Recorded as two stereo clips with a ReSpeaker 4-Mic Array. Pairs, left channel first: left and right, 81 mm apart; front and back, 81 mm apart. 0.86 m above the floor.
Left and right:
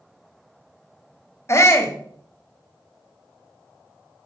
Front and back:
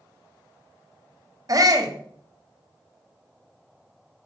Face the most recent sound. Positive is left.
turn(degrees=145)